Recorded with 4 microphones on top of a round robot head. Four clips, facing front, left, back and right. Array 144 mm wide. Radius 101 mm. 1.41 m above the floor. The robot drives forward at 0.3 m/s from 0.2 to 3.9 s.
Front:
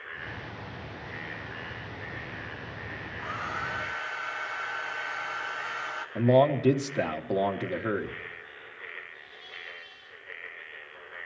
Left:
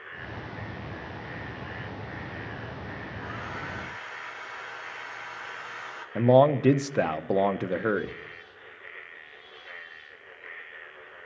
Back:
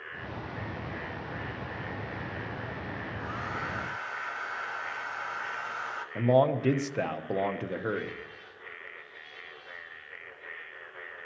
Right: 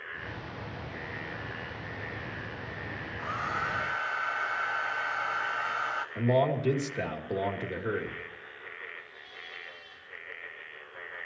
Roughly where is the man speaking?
Left.